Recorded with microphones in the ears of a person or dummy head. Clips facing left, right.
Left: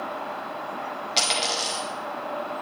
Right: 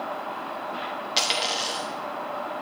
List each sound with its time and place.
1.2 s a dropped coin: 5° right (ahead or behind), 1.0 m